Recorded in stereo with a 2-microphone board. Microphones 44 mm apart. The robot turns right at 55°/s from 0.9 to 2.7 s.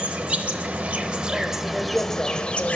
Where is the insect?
50° right, 0.7 m; by 2.8 s 50° left, 0.7 m.